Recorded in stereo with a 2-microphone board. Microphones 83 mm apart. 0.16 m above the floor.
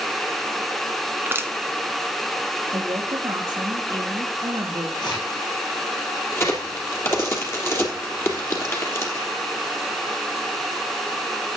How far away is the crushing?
About 1.1 m.